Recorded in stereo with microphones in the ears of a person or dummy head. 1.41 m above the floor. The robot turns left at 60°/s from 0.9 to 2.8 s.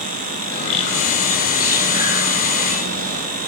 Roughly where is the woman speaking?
I don't hear a woman speaking.